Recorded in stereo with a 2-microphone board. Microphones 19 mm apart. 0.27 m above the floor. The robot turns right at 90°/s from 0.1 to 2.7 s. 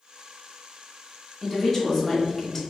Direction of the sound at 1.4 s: 10° left (ahead or behind).